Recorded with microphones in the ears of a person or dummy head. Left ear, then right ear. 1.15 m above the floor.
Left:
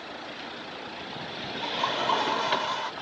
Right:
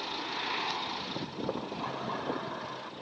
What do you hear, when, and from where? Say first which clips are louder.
1.6 s laughter: left 10 dB; 80° left